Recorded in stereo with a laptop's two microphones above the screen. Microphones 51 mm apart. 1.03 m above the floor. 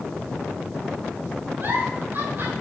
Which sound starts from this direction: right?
A giggle, at 1.6 s.